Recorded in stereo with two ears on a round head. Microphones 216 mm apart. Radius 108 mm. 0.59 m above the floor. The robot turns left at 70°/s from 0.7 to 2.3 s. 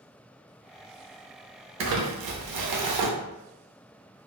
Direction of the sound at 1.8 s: 55° right.